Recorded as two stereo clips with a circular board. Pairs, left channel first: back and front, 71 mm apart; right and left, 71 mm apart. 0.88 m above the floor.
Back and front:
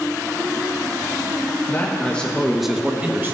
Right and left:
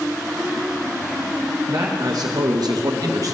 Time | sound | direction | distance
1.7 | a man speaking | 125° left | 0.8 m